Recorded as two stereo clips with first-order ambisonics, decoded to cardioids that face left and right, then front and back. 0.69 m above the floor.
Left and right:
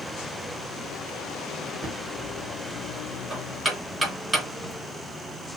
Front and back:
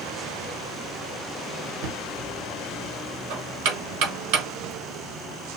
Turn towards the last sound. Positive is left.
turn(degrees=-170)